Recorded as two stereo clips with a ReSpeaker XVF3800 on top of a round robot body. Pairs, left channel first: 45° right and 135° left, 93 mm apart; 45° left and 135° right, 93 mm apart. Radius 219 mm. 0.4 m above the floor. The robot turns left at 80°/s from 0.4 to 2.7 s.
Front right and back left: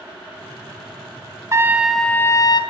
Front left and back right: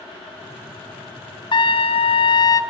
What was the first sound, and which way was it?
A trumpet, 80° left.